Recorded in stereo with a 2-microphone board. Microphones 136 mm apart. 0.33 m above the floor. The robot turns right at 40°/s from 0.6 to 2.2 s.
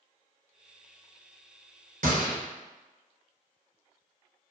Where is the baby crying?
No baby crying in this recording.